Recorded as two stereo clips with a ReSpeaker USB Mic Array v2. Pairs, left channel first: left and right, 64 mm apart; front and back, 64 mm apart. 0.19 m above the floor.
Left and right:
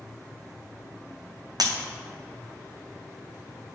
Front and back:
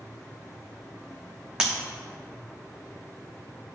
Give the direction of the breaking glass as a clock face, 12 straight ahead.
3 o'clock.